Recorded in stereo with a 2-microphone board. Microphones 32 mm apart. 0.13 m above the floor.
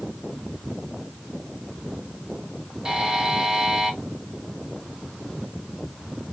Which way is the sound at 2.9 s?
20° right (ahead or behind).